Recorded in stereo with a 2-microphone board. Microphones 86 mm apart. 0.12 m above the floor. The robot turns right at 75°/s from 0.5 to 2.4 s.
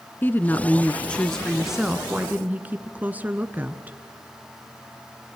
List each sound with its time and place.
0.2 s a woman speaking: 20° left (ahead or behind), 1.1 m; by 4.0 s 20° right (ahead or behind), 1.1 m